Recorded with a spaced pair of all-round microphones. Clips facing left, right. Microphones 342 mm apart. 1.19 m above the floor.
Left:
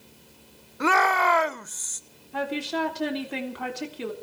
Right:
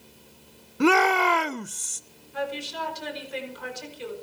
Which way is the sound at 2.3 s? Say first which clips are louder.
Left 4 dB; 80° left.